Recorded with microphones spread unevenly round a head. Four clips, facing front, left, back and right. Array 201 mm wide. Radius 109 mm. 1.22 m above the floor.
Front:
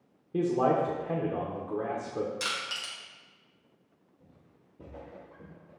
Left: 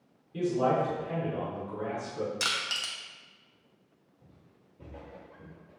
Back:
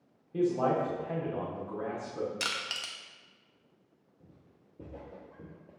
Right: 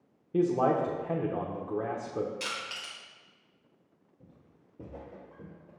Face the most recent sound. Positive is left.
turn(degrees=-160)